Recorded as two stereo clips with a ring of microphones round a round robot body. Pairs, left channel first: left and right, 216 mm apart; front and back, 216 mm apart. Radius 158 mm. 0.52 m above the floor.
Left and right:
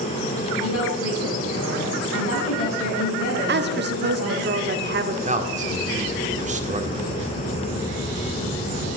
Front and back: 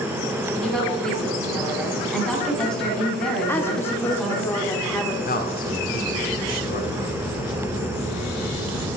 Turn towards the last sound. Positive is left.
turn(degrees=-40)